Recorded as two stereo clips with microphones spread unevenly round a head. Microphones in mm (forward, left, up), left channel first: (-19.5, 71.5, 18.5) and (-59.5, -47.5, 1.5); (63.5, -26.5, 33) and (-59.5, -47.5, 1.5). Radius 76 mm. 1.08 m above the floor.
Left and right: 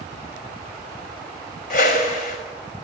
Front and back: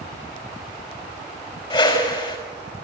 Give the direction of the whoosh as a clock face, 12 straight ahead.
9 o'clock.